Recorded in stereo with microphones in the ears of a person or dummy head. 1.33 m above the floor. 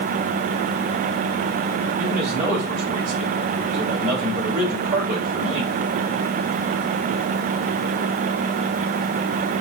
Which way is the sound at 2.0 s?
35° right (ahead or behind).